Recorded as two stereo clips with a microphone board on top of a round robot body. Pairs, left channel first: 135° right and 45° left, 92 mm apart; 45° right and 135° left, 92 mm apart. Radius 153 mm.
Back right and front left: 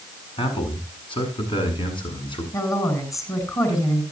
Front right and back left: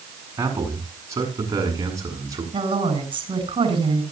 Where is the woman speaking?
170° left, 7 m.